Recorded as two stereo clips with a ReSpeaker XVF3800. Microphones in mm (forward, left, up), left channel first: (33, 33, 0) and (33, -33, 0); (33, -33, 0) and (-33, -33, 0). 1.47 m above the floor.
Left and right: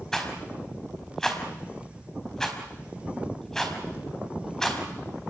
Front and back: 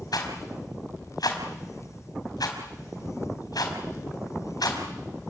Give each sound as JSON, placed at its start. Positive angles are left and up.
{"t": 0.1, "sound": "a rattle", "azimuth_deg": 5, "distance_m": 4.5}